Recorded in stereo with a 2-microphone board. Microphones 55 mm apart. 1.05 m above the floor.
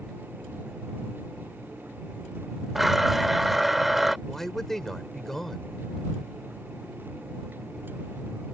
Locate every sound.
2.8 s a blender: 5° right (ahead or behind)
4.3 s a man speaking: 5° left (ahead or behind)